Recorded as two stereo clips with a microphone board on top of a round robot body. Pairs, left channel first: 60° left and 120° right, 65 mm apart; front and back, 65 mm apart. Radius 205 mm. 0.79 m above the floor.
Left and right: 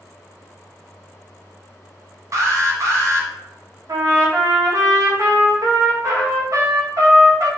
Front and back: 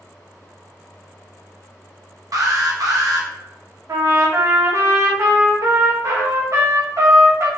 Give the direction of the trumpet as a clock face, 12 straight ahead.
5 o'clock.